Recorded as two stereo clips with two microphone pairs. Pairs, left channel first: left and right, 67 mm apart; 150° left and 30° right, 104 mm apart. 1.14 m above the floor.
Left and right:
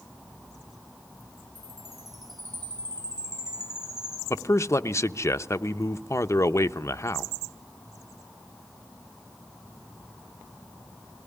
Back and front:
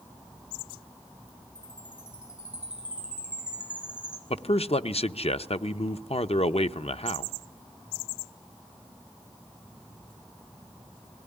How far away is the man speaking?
About 0.8 m.